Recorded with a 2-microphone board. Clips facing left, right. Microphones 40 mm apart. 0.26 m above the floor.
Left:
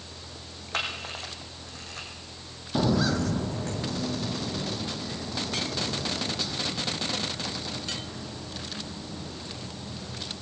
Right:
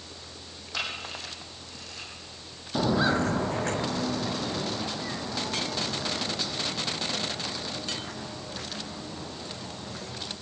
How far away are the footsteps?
About 0.5 m.